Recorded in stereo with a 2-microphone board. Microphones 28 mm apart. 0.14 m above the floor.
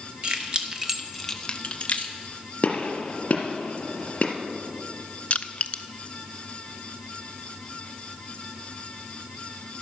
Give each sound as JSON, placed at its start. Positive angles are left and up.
{"t": 0.2, "sound": "keys jangling", "side_deg": -40, "distance_m": 1.6}
{"t": 2.6, "sound": "a gunshot", "side_deg": 50, "distance_m": 1.8}
{"t": 5.3, "sound": "crushing", "side_deg": 50, "distance_m": 0.5}